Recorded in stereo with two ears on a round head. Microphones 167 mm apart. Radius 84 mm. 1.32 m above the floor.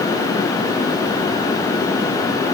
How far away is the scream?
No scream in this recording.